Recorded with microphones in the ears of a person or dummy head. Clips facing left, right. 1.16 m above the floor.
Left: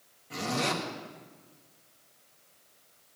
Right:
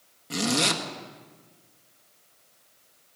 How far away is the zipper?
About 1.8 m.